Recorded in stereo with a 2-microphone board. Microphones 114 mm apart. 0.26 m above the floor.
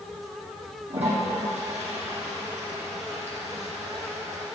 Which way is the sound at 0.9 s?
70° right (ahead or behind).